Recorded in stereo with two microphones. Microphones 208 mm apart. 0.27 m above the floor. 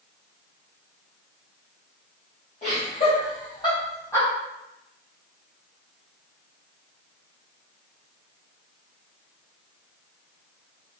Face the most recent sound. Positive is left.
turn(degrees=15)  # may be behind; listen again after turning